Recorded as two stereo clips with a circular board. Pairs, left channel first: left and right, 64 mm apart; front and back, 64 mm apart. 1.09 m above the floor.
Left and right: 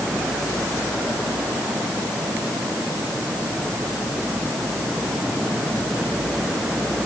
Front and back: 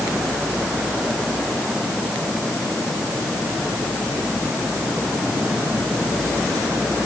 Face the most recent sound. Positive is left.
No sound to turn to.